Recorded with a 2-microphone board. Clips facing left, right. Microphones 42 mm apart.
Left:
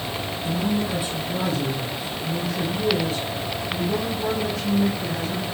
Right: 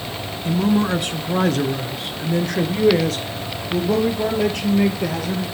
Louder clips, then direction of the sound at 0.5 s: Right 7 dB; 55° right (ahead or behind).